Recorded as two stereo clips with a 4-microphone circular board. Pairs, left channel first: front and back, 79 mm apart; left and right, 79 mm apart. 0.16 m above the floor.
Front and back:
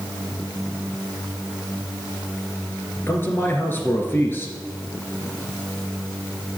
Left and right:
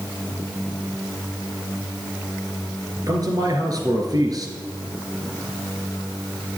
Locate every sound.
3.1 s a man speaking: 60° right, 2 m